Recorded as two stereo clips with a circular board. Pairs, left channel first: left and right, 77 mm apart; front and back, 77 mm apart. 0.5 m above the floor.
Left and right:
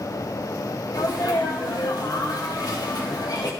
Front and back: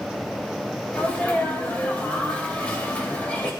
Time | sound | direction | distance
0.9 | a sneeze | 70° left | 2.5 m